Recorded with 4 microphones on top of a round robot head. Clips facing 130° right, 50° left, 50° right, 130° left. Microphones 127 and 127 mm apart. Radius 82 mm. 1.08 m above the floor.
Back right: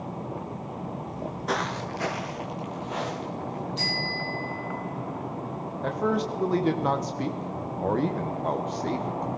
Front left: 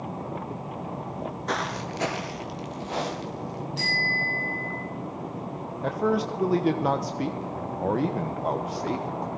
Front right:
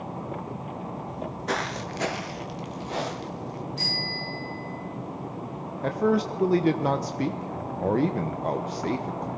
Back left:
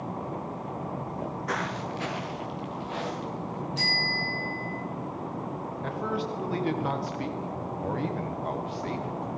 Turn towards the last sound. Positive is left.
turn(degrees=-30)